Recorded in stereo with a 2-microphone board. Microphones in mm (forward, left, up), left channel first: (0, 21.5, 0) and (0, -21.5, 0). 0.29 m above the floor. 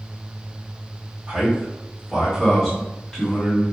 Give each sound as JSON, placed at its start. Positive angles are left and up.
{"t": 1.3, "sound": "a man speaking", "side_deg": -20, "distance_m": 1.5}